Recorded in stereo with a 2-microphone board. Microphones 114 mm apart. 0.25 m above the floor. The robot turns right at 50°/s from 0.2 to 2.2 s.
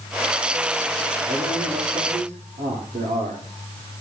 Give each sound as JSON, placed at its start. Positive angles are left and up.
{"t": 1.3, "sound": "a man speaking", "azimuth_deg": -140, "distance_m": 9.5}